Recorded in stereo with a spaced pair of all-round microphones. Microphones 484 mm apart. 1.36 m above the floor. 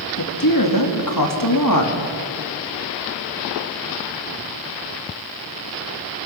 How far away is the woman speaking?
About 3 m.